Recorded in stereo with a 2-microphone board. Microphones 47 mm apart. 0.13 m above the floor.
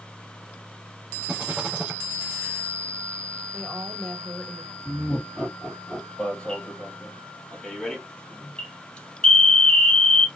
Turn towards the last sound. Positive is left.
turn(degrees=20)  # may be behind; listen again after turning